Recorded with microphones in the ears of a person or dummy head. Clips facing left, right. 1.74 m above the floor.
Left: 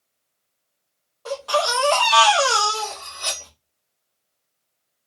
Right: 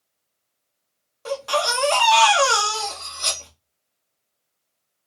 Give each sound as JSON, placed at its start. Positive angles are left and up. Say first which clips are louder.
{"t": 1.2, "sound": "a baby crying", "louder": "left 1 dB", "side_deg": -30, "distance_m": 0.8}
{"t": 2.7, "sound": "cutlery clinking", "louder": "left 1 dB", "side_deg": -40, "distance_m": 3.0}